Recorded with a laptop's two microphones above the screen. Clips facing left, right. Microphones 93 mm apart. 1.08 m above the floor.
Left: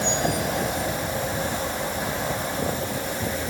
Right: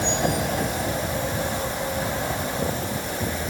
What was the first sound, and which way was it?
Only background noise.